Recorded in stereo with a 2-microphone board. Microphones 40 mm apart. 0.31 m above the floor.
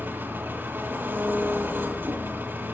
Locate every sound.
0.0 s an engine running: 60° right (ahead or behind), 2 m